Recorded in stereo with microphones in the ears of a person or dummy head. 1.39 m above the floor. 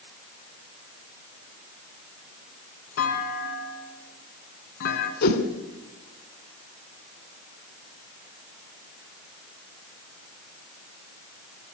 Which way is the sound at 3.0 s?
60° left (ahead or behind).